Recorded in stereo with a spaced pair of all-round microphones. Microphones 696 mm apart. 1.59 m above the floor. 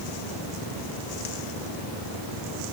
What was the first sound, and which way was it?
Only background noise.